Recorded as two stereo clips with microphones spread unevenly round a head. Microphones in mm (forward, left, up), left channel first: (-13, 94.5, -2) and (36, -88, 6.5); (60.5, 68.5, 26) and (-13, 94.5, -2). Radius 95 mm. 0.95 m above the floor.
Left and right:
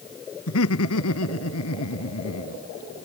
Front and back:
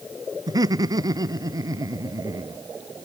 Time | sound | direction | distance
0.5 | laughter | 125° left | ?